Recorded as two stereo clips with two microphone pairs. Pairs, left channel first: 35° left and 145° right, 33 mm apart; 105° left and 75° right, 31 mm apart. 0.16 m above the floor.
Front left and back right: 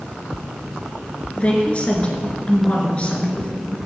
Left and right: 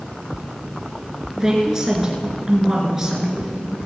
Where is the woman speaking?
10° right, 3 m.